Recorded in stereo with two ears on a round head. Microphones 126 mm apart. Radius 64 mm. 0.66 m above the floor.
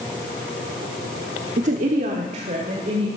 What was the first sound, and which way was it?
A woman speaking, 55° right (ahead or behind).